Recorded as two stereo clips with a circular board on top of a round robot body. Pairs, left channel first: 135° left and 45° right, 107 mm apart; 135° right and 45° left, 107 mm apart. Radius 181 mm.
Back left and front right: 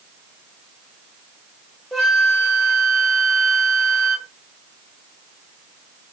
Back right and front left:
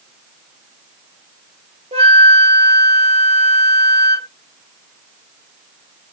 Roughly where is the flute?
Ahead left.